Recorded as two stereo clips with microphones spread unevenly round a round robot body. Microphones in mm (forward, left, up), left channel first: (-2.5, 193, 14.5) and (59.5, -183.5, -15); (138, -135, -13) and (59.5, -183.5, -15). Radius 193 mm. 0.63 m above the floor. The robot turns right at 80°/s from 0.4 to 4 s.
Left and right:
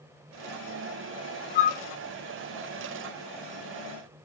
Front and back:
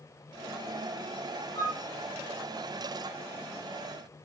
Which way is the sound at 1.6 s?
65° left.